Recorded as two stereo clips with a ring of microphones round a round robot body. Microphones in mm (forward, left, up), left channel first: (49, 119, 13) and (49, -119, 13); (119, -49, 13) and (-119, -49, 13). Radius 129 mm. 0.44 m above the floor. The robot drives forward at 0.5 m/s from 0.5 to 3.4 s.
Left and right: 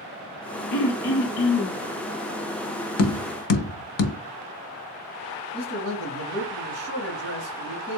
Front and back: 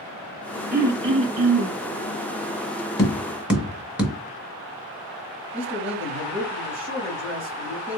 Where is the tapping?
75° left, 0.7 m; by 4.2 s 95° left, 0.7 m.